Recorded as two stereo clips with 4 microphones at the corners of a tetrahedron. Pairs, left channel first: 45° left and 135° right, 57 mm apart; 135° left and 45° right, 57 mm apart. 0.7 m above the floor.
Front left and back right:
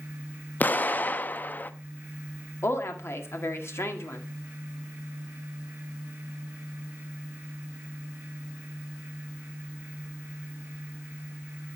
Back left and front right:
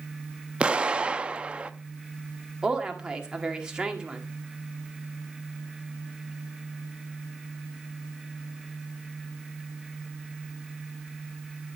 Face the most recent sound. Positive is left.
turn(degrees=25)